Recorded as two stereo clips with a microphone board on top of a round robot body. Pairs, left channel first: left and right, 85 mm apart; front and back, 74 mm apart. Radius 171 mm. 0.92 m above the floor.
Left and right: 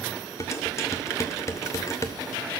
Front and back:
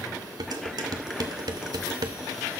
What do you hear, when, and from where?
0.4 s dishes clattering: 145° left, 0.7 m